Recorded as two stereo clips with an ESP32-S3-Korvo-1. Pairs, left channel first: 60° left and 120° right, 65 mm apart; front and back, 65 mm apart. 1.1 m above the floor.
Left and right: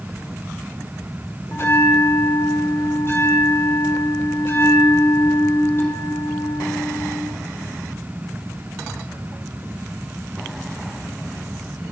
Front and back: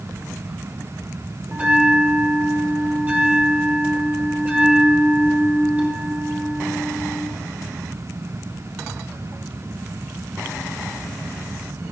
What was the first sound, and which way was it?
A bell, 110° left.